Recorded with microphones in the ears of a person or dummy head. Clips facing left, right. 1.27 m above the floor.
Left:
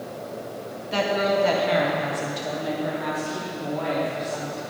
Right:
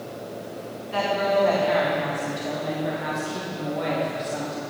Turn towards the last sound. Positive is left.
turn(degrees=-30)  # may be behind; listen again after turning